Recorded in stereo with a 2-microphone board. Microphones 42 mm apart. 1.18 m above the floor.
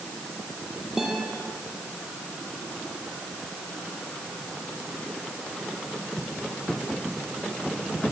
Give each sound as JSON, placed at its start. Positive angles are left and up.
{"t": 1.0, "sound": "a guitar", "side_deg": -5, "distance_m": 6.0}